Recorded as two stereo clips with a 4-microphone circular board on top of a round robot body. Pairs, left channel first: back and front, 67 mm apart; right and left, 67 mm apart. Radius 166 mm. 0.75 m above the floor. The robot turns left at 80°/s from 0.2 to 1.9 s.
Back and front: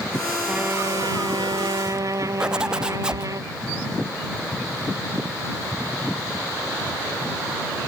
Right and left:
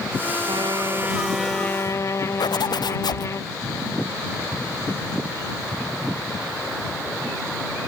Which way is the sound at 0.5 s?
75° left.